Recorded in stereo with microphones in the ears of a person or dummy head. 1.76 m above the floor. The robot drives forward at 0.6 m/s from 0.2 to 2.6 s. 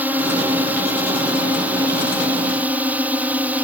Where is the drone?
10° right (ahead or behind).